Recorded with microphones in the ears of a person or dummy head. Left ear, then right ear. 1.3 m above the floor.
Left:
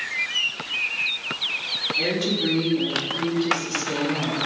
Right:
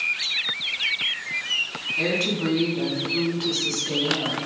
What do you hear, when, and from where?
2.0 s a woman speaking: 45° right (ahead or behind), 3 m